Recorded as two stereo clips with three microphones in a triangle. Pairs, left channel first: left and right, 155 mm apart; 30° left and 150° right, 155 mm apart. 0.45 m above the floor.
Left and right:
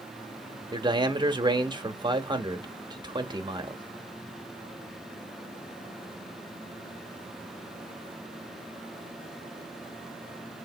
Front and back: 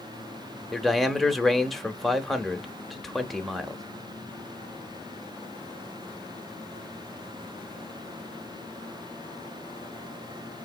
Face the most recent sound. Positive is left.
turn(degrees=-60)